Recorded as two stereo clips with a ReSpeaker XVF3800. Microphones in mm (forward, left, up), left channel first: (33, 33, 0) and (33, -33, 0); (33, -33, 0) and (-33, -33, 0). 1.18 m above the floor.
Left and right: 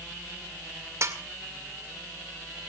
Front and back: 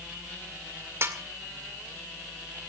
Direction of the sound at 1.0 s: 130° right.